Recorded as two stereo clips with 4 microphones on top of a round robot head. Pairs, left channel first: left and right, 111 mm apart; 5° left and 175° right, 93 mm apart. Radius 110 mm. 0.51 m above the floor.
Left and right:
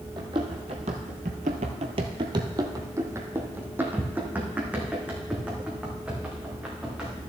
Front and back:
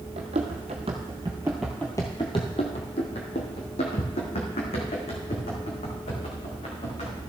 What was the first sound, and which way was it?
Running footsteps, 150° right.